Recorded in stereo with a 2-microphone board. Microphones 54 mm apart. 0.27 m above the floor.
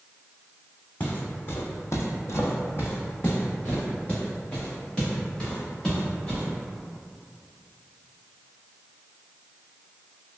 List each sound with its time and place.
1.0 s footsteps: 30° left (ahead or behind), 0.8 m; by 6.4 s 15° left (ahead or behind), 3 m